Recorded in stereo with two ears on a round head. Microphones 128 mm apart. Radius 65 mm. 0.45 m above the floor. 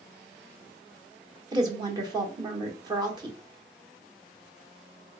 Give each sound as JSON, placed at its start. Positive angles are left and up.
{"t": 1.5, "sound": "a woman speaking", "side_deg": -30, "distance_m": 0.9}